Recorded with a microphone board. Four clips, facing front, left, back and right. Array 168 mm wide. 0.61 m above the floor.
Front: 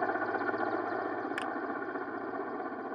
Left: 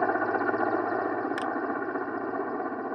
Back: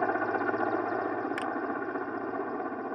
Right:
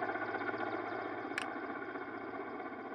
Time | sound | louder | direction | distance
0.0 | a helicopter | left 12 dB, back 3 dB | 105° left | ?
1.4 | a finger snap | left 11 dB, back 3 dB | 80° left | ?